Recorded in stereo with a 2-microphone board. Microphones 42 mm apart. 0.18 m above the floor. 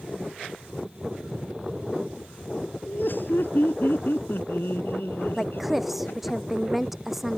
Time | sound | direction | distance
2.9 | laughter | 55° left (ahead or behind) | ?
5.4 | a woman speaking | 5° right (ahead or behind) | ?